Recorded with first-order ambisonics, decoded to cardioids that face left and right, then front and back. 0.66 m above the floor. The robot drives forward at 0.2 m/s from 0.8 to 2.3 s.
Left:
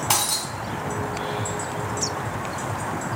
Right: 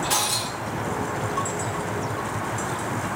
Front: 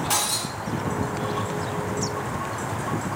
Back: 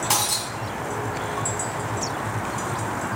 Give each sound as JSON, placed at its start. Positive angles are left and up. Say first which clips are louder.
{"t": 0.1, "sound": "breaking glass", "louder": "left 3 dB, back 1 dB", "azimuth_deg": 125, "distance_m": 1.9}